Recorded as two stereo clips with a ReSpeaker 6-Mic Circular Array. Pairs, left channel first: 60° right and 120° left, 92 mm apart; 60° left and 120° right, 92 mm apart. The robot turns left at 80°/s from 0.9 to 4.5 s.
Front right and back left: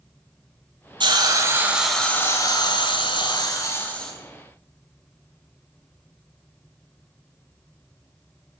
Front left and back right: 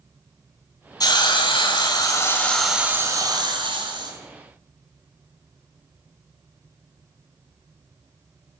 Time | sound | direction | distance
1.0 | a hiss | 100° left | 2.5 m